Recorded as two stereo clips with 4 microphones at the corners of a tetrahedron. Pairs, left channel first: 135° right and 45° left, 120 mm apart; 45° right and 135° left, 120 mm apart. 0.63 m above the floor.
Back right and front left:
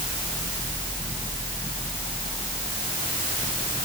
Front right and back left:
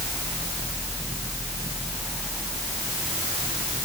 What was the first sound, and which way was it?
Only background noise.